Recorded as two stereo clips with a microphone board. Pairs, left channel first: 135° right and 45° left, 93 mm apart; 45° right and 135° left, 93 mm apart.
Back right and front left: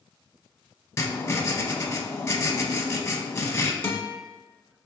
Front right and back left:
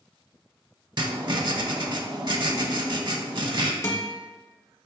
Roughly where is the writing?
Behind.